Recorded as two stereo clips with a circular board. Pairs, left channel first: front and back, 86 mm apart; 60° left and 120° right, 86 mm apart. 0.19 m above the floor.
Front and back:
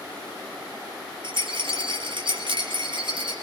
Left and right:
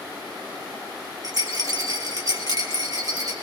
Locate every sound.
1.2 s a rattle: 165° right, 5.5 m